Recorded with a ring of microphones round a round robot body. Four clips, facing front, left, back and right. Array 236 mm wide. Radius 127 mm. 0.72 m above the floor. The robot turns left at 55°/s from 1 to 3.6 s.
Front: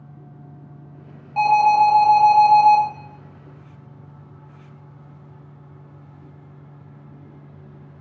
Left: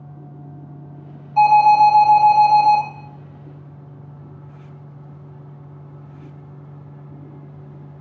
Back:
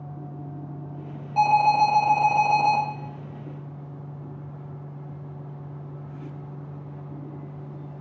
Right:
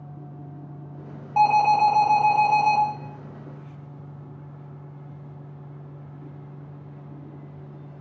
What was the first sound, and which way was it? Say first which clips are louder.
An alarm: left 7 dB, front 4 dB; 75° right.